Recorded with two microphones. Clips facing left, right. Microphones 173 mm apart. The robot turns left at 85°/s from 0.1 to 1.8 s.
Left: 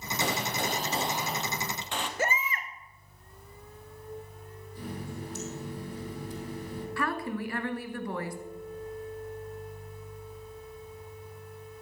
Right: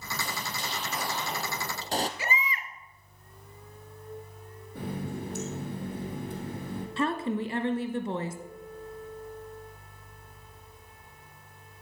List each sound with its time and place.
0.2 s a gunshot: 95° left, 1.0 m; by 2.1 s 40° right, 1.0 m
2.2 s a baby crying: 50° left (ahead or behind), 1.1 m
4.8 s a running tap: 60° right (ahead or behind), 3 m
7.0 s a woman speaking: 25° right (ahead or behind), 1.2 m